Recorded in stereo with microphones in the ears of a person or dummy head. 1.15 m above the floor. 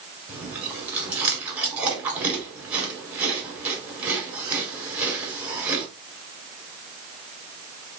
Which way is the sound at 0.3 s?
5° right (ahead or behind).